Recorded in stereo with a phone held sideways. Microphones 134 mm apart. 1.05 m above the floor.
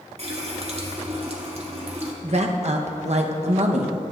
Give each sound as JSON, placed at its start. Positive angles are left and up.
{"t": 0.2, "sound": "a running tap", "side_deg": -50, "distance_m": 1.1}
{"t": 2.2, "sound": "a woman speaking", "side_deg": -55, "distance_m": 0.8}